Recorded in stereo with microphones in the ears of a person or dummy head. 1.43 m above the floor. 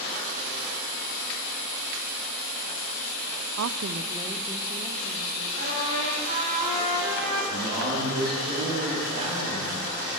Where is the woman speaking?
80° right, 0.5 m; by 5.5 s 15° left (ahead or behind), 1.9 m.